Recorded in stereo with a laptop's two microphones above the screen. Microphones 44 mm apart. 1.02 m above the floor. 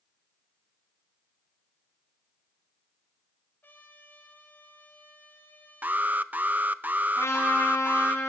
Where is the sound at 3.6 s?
50° left (ahead or behind), 3.5 m.